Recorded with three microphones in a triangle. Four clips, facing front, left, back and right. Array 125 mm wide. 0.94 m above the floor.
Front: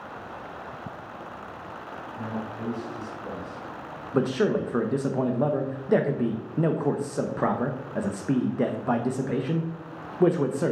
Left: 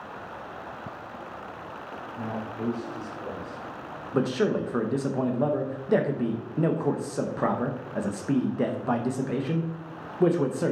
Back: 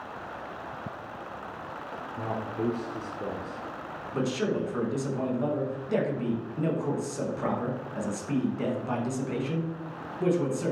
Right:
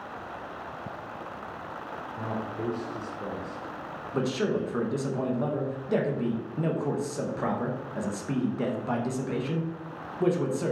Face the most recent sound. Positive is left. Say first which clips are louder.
# left 3 dB, front 5 dB
turn(degrees=30)